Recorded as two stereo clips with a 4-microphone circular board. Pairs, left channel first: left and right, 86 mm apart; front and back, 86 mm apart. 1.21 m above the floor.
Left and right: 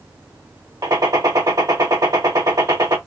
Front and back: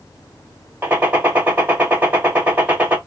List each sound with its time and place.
0.8 s a gunshot: 120° right, 1.4 m